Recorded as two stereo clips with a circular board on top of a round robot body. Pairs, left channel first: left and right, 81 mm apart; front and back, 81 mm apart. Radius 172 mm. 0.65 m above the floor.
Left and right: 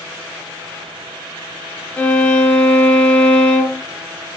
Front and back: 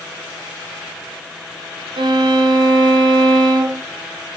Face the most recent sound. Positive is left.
turn(degrees=165)